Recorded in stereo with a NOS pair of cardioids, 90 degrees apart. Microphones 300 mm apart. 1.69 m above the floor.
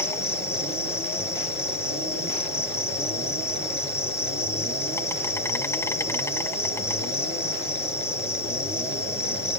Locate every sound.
0.0 s an insect: 10° left